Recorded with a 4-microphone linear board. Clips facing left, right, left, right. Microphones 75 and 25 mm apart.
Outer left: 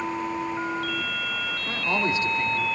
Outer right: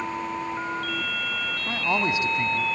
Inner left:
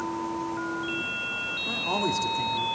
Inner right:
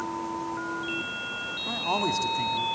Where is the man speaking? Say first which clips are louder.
Outer right 1 dB, inner right 1 dB; 20° right (ahead or behind), 1.6 m.